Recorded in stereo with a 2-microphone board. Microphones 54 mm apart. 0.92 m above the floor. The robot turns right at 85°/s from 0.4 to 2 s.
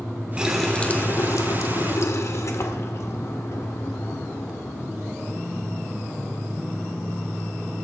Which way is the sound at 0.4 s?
15° right.